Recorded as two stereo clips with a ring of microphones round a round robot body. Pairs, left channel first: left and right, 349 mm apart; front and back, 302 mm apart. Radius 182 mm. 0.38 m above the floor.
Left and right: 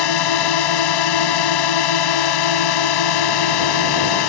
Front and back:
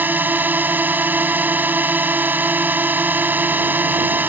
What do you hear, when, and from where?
0.0 s a drone: 95° left